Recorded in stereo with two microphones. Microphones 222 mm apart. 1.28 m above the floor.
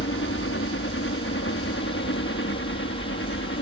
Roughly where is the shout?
I don't hear a shout.